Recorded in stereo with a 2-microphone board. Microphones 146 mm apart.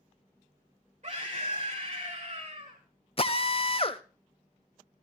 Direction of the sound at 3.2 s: 40° left (ahead or behind).